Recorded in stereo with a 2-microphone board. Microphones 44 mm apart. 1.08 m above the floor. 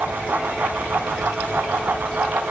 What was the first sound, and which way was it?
Only background noise.